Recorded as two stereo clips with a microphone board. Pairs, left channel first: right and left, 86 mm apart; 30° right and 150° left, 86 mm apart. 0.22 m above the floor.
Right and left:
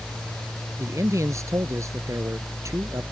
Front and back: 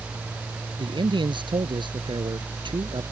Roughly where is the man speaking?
Behind left.